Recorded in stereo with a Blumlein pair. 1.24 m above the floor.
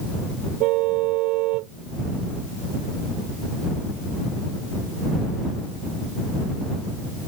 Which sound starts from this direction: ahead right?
A car horn, at 0.6 s.